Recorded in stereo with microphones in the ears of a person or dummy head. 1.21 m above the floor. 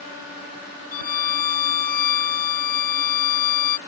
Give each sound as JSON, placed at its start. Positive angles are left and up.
{"t": 0.9, "sound": "a violin", "side_deg": 50}